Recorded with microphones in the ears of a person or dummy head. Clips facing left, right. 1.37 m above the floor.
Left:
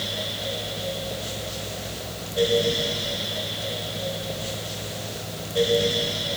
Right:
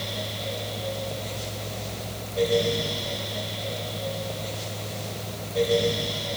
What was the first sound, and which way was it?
Only background noise.